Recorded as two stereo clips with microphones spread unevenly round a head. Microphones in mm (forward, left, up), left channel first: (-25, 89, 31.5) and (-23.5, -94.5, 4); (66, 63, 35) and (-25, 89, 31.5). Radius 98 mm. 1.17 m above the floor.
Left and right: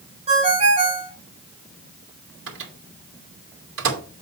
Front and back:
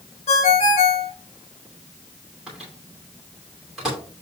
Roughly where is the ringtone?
Ahead right.